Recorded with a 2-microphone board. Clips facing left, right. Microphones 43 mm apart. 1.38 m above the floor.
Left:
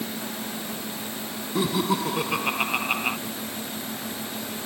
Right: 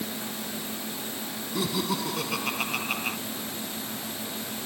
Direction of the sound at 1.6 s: 20° left (ahead or behind).